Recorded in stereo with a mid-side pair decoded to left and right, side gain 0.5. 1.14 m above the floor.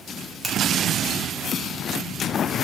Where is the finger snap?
5° right, 1.7 m.